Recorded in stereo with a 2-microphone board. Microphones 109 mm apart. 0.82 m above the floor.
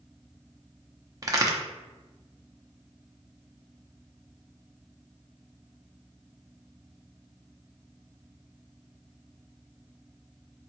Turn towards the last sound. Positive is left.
turn(degrees=-30)  # may be behind; listen again after turning